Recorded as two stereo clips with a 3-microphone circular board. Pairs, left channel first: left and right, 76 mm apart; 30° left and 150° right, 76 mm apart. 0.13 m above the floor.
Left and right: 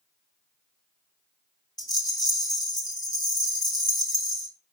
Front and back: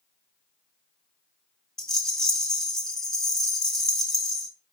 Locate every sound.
1.8 s a rattle: 110° left, 1.0 m